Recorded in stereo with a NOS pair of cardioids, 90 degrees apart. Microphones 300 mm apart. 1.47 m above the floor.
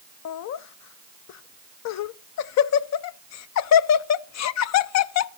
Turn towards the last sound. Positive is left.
turn(degrees=65)